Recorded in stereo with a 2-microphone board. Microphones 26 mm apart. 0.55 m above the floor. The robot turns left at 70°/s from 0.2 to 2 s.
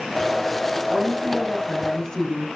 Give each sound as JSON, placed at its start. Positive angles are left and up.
{"t": 0.9, "sound": "a woman speaking", "azimuth_deg": -125, "distance_m": 4.5}